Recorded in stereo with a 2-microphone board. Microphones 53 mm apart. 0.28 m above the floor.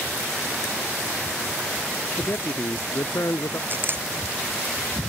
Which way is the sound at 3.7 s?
40° right (ahead or behind).